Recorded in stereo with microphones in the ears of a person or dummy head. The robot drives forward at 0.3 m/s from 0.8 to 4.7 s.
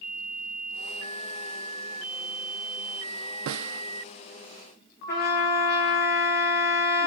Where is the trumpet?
60° left (ahead or behind), 1.9 m.